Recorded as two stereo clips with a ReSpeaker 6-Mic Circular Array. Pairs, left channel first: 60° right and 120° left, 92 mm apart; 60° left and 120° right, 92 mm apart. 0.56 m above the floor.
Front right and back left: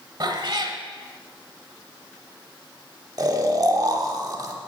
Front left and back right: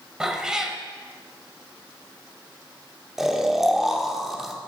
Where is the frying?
I don't hear frying.